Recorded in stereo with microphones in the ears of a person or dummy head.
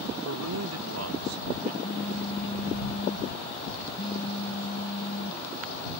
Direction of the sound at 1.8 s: 40° left (ahead or behind).